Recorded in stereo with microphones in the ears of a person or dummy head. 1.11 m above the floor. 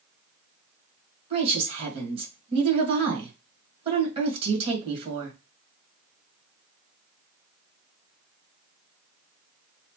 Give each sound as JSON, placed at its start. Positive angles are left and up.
{"t": 1.3, "sound": "a woman speaking", "side_deg": -30, "distance_m": 1.5}